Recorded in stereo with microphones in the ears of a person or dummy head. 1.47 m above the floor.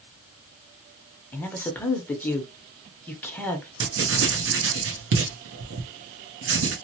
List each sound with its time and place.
1.3 s a man speaking: 10° left (ahead or behind), 0.8 m
3.8 s writing: 80° right, 0.9 m